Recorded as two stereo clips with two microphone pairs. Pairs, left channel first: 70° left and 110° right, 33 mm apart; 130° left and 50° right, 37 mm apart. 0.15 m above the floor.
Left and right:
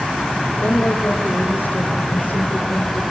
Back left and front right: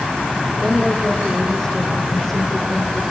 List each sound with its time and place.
0.6 s a woman speaking: 50° left, 6.5 m